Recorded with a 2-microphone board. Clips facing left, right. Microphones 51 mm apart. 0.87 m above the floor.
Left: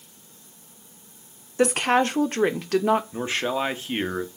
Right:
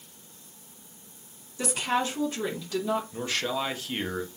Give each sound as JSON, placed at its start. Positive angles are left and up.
{"t": 1.6, "sound": "a woman speaking", "side_deg": 55, "distance_m": 0.5}
{"t": 3.1, "sound": "a man speaking", "side_deg": 25, "distance_m": 0.7}